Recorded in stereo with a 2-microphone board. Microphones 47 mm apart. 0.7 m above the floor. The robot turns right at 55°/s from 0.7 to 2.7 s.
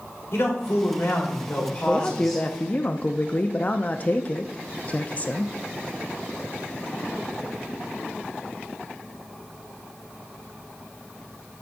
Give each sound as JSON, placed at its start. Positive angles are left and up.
{"t": 0.3, "sound": "a man speaking", "azimuth_deg": 85, "distance_m": 2.5}
{"t": 1.9, "sound": "a man speaking", "azimuth_deg": 25, "distance_m": 0.5}